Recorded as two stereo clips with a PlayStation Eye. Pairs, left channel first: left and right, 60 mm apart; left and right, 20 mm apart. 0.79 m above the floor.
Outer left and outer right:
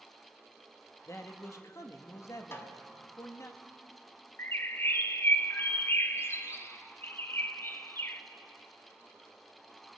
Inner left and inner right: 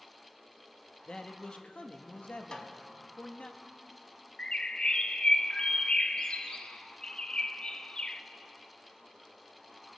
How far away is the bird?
About 0.5 m.